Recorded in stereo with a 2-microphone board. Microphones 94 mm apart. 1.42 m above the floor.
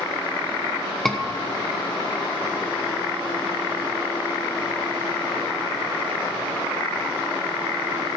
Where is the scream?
5° left (ahead or behind), 1.2 m.